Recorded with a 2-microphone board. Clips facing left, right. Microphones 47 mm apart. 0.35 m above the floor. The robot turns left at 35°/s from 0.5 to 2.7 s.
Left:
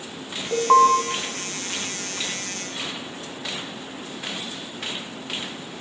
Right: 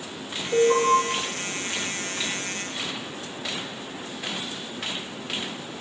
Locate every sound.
0.5 s an alarm: 50° left (ahead or behind), 2.5 m; by 0.9 s 60° left (ahead or behind), 2.5 m